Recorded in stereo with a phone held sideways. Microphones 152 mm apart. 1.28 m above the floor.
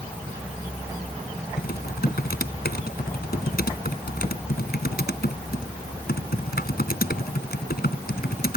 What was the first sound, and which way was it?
Typing on a keyboard, 90° left.